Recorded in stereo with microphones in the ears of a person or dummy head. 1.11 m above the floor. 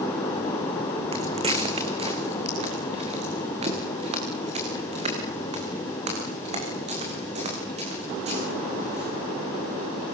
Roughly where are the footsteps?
Right.